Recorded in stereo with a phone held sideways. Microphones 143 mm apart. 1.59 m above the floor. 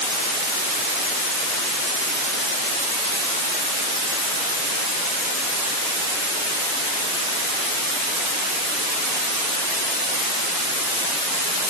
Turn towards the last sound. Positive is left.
No sound to turn to.